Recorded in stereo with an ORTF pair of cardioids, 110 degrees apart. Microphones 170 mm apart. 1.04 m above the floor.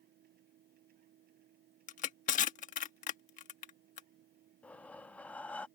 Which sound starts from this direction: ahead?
Breathing, at 4.6 s.